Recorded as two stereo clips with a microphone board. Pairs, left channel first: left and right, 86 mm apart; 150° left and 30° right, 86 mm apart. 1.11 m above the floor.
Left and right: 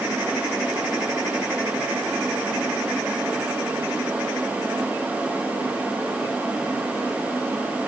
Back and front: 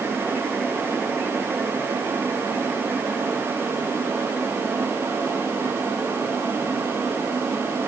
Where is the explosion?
I don't hear an explosion.